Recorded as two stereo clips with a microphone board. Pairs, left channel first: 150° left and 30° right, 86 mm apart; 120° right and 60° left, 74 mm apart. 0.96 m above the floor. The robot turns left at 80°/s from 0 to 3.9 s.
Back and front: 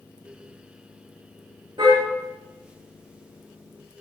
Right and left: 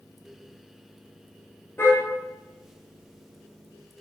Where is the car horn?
60° right, 9 m; by 2.0 s 75° right, 9 m.